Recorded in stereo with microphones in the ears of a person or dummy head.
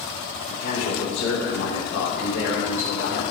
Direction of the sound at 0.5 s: 70° left (ahead or behind).